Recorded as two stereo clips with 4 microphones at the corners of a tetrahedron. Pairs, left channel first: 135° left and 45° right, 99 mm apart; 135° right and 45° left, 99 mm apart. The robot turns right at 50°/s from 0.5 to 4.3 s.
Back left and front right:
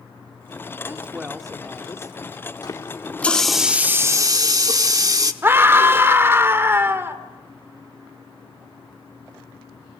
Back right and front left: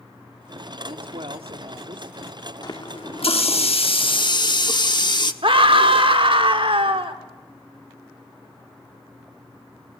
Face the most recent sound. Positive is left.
turn(degrees=20)